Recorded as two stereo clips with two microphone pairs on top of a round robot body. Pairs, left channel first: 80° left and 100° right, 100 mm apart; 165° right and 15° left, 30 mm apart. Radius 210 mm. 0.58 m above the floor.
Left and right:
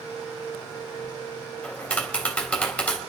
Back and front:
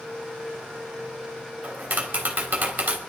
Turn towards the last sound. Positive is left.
turn(degrees=5)